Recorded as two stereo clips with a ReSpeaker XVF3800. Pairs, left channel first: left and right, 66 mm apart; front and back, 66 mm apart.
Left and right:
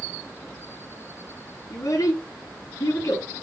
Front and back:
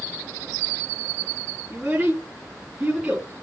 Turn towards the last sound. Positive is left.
turn(degrees=110)